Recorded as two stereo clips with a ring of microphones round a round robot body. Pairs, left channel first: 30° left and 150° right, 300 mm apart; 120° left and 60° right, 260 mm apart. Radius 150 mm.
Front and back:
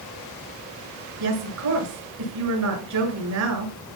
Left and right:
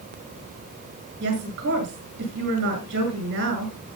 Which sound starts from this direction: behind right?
A woman speaking, at 1.2 s.